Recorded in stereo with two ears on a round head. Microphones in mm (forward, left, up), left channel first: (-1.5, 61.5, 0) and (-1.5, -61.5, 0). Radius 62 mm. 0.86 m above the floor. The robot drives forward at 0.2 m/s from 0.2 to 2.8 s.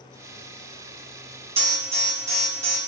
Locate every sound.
1.6 s an alarm: 45° right (ahead or behind), 1.1 m; by 2.8 s 50° right (ahead or behind), 0.9 m